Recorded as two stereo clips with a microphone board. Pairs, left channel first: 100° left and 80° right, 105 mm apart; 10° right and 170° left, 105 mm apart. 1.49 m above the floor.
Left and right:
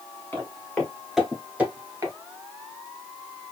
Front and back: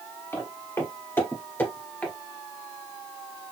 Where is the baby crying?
I don't hear a baby crying.